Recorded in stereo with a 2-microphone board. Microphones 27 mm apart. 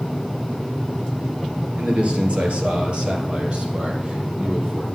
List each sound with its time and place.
1.8 s a man speaking: 50° right (ahead or behind), 2.5 m; by 4.8 s 40° right (ahead or behind), 4.5 m